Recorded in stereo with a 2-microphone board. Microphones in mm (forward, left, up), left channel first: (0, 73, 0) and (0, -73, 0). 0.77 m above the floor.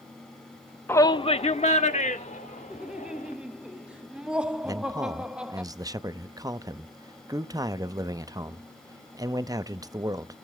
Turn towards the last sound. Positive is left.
turn(degrees=-25)  # may be behind; listen again after turning